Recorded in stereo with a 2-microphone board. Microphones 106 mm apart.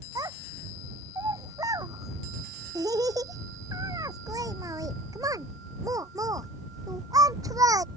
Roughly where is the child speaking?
Right.